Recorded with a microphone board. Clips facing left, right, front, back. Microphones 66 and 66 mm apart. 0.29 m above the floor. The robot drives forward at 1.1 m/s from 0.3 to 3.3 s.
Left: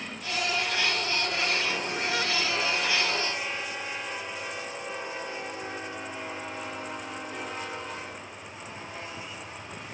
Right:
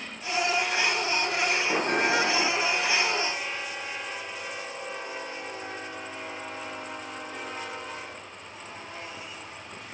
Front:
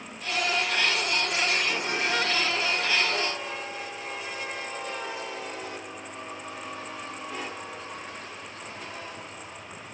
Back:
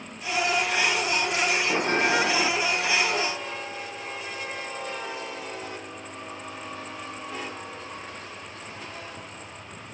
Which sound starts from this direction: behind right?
A bell, at 1.7 s.